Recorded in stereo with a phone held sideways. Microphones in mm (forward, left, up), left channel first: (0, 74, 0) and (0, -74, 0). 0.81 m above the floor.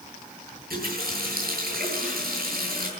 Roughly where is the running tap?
Right.